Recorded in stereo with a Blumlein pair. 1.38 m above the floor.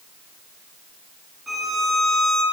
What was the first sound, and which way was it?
A violin, 10° right.